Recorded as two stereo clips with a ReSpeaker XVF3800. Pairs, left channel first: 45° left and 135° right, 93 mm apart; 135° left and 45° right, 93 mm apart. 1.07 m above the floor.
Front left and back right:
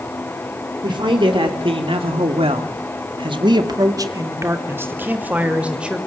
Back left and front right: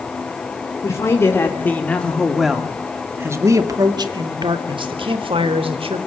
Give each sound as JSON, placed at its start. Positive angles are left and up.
{"t": 0.8, "sound": "a man speaking", "azimuth_deg": -165, "distance_m": 3.5}